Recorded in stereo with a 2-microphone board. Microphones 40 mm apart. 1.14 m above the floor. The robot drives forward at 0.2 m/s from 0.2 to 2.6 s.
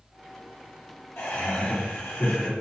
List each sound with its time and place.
1.2 s laughter: 80° left, 3 m